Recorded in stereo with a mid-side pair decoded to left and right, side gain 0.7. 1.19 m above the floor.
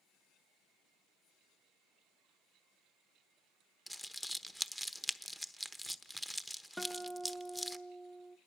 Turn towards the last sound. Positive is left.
turn(degrees=10)